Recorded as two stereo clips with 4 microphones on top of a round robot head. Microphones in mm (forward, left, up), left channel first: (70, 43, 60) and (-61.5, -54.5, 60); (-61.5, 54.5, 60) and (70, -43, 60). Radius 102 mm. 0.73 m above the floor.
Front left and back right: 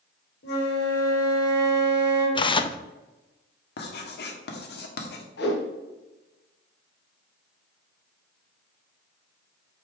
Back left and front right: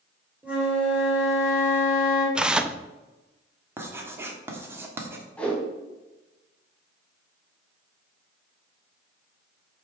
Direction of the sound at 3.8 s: 40° left.